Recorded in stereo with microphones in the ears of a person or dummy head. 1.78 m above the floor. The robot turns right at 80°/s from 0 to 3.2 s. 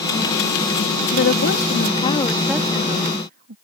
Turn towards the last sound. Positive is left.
turn(degrees=-125)